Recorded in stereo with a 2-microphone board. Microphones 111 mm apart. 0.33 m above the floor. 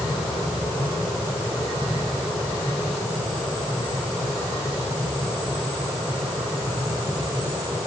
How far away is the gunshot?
No gunshot in this recording.